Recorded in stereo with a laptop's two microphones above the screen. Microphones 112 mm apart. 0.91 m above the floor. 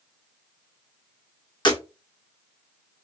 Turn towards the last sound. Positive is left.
turn(degrees=45)  # may be behind; listen again after turning